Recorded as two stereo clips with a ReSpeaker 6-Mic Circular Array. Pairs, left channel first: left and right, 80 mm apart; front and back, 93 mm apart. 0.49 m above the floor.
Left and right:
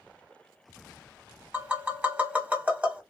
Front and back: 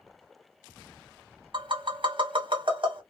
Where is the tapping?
160° right, 1.0 m.